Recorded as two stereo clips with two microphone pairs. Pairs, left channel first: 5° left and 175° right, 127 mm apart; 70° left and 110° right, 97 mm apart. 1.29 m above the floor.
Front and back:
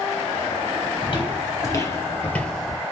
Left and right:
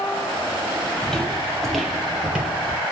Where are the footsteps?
15° right, 1.7 m; by 2.8 s 90° right, 1.3 m.